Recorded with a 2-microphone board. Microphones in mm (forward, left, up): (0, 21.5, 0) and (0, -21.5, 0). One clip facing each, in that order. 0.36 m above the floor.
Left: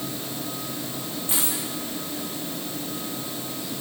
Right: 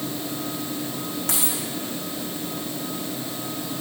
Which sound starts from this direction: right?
A dropped coin, at 1.3 s.